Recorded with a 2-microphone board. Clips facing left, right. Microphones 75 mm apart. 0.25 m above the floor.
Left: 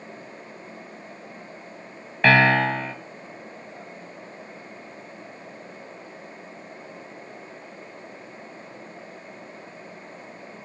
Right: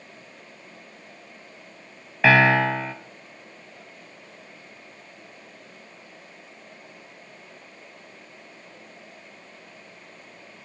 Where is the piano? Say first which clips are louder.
Even; 5° right (ahead or behind), 0.6 m.